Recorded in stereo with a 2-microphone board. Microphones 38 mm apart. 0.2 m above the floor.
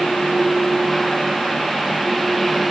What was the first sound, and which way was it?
Only background noise.